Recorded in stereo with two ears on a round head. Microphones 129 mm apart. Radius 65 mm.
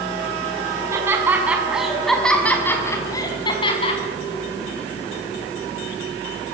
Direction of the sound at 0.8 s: 20° right (ahead or behind).